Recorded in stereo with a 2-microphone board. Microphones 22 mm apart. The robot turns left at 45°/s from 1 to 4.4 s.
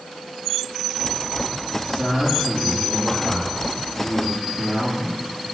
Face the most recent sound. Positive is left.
turn(degrees=110)